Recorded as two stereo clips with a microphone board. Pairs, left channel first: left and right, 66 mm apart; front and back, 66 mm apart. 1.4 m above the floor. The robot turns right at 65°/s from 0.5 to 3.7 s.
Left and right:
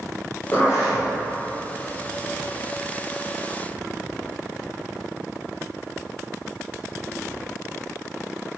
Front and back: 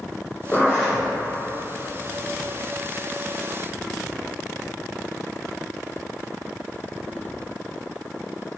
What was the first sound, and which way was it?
A zipper, 55° left.